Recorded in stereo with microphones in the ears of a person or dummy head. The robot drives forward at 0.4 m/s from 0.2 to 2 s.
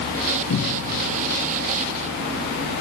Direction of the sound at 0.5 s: 90° left.